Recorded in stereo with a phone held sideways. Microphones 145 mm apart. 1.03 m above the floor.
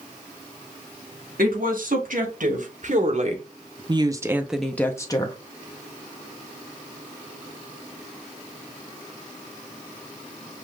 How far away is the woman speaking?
About 2 m.